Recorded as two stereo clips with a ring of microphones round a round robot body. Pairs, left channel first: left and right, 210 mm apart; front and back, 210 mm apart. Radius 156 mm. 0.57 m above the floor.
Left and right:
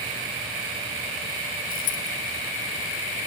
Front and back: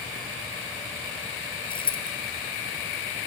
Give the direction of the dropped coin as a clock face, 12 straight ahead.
10 o'clock.